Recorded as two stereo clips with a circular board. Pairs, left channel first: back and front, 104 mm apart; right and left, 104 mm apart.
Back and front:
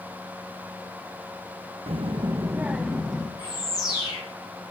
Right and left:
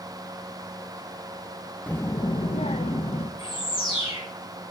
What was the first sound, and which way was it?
A child speaking, 15° right.